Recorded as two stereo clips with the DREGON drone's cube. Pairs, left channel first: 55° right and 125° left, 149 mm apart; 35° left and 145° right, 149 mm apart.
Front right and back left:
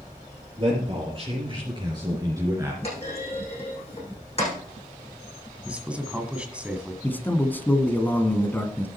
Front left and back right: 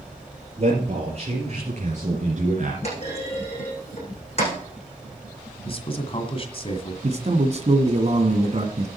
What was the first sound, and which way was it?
A man speaking, 175° left.